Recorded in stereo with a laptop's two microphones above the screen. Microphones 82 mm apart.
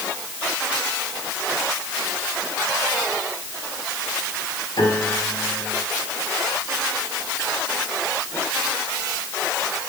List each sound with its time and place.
4.8 s a piano: 80° left, 5 m